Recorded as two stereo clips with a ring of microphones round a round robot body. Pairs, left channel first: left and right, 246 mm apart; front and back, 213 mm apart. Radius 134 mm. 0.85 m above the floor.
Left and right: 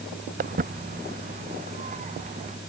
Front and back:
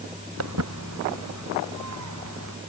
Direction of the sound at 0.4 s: 150° right.